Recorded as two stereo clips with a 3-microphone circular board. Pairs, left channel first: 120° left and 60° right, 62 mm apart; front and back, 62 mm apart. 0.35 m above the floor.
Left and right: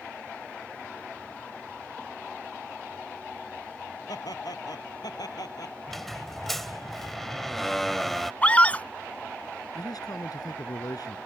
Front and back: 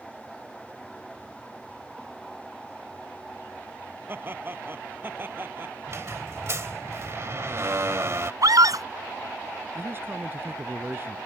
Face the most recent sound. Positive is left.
turn(degrees=125)